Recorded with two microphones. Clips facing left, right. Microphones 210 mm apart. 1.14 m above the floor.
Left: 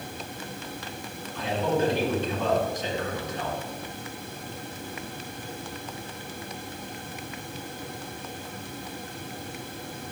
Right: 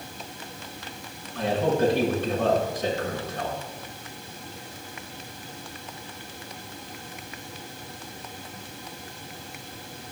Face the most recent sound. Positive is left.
turn(degrees=-55)  # may be behind; listen again after turning